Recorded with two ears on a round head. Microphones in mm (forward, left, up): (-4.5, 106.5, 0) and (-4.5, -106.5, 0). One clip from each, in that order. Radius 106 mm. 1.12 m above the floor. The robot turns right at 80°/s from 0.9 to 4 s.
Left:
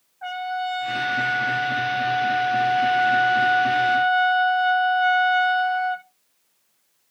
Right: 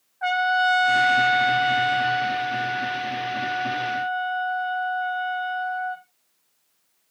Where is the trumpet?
135° right, 0.7 m; by 6.0 s 115° left, 0.7 m.